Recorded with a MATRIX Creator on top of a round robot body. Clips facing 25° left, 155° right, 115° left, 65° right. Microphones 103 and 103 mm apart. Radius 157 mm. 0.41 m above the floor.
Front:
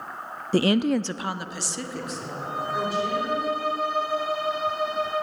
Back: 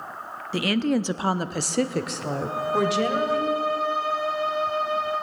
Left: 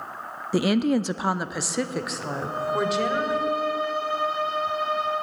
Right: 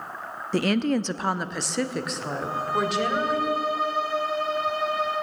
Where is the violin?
15° right, 7.5 m.